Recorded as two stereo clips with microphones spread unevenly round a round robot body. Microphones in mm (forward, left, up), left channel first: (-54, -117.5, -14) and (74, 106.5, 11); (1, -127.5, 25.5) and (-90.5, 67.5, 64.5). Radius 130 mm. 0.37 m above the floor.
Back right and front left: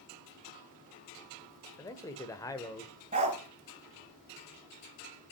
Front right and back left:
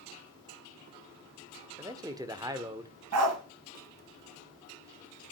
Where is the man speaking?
170° right, 1.2 m.